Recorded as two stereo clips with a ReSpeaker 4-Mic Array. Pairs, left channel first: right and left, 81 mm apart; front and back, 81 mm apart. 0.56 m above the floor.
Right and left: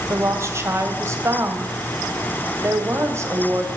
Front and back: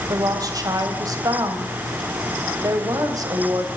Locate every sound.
0.1 s a woman speaking: 145° left, 2.5 m